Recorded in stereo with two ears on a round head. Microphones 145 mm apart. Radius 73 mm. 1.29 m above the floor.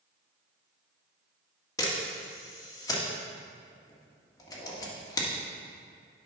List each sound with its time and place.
1.8 s a camera shutter: 25° left (ahead or behind), 1.7 m